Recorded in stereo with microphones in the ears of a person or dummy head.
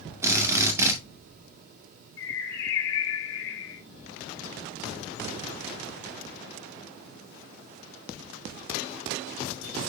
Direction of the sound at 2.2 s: 65° left (ahead or behind).